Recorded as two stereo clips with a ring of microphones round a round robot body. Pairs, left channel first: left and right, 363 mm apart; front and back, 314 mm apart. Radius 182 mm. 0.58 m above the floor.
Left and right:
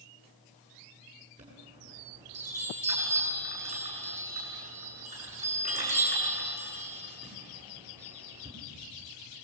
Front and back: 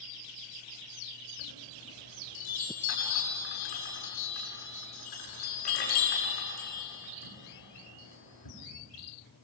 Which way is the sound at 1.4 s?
20° right.